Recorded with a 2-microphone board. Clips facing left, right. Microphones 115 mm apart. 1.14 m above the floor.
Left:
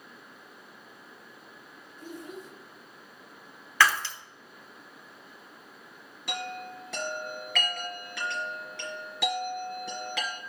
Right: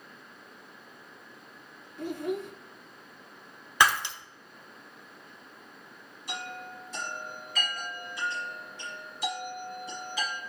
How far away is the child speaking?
About 0.7 m.